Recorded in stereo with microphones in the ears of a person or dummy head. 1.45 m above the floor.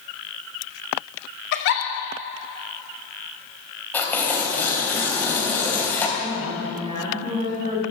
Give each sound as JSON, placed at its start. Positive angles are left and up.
{"t": 1.5, "sound": "a giggle", "side_deg": 60, "distance_m": 2.0}
{"t": 3.9, "sound": "tearing paper", "side_deg": 10, "distance_m": 2.5}
{"t": 6.2, "sound": "a woman speaking", "side_deg": -30, "distance_m": 3.0}